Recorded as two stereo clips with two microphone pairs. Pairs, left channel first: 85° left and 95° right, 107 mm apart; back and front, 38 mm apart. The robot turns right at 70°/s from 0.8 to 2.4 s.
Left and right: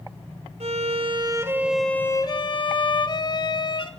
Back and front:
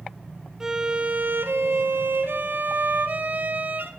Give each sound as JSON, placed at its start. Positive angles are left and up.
{"t": 0.6, "sound": "a violin", "azimuth_deg": -75, "distance_m": 0.5}